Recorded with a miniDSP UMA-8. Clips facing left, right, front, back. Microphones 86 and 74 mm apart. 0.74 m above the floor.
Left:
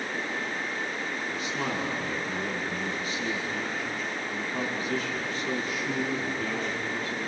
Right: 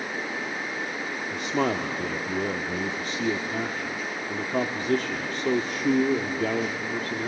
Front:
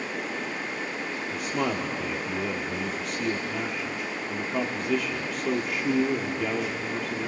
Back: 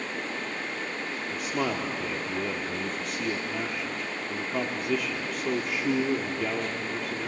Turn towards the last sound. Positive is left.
turn(degrees=-90)